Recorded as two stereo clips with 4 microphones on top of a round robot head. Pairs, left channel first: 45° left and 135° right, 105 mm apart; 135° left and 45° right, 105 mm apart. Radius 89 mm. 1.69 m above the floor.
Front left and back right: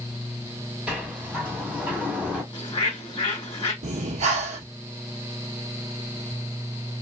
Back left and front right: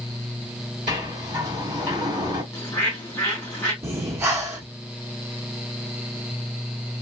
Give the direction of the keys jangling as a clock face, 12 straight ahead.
No keys jangling in this recording.